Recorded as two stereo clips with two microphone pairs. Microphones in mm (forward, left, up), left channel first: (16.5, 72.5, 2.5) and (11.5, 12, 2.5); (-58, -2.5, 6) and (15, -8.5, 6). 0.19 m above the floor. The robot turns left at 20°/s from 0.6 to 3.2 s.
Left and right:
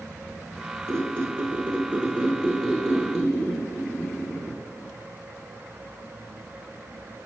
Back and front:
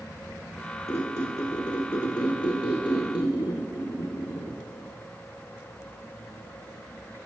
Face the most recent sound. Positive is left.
turn(degrees=170)